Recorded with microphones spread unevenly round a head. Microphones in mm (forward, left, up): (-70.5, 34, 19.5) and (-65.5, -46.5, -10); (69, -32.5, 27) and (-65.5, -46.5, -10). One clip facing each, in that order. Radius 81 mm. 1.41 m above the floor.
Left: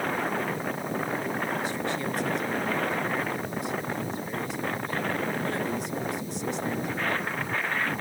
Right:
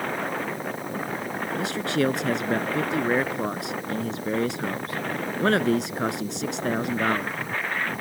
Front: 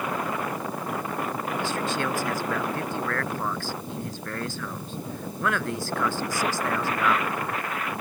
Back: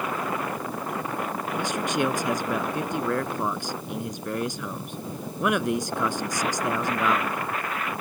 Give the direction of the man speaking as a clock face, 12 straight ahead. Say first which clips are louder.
Right 5 dB, back 4 dB; 3 o'clock.